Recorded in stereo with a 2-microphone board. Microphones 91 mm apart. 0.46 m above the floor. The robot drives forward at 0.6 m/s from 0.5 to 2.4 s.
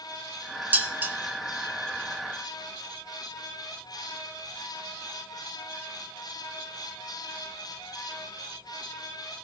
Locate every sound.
0.7 s dishes clattering: 20° right (ahead or behind), 1.5 m; by 1.1 s 25° right (ahead or behind), 1.3 m